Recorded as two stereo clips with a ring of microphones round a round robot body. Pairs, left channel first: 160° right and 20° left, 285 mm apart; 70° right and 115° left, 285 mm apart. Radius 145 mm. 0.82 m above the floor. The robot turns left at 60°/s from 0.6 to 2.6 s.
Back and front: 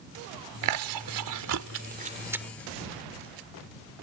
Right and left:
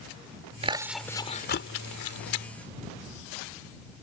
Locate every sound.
0.6 s chewing: 45° left; by 2.5 s 65° right